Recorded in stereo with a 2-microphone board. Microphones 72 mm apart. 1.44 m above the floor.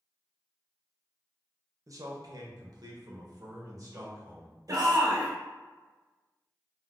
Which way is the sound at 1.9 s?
50° right (ahead or behind).